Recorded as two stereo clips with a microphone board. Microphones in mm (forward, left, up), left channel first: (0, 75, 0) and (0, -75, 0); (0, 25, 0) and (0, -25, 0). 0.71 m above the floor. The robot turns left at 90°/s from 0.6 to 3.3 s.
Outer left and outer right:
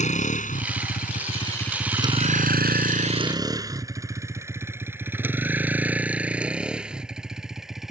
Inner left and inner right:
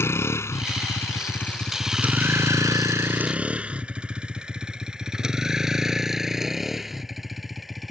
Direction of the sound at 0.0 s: 55° left (ahead or behind).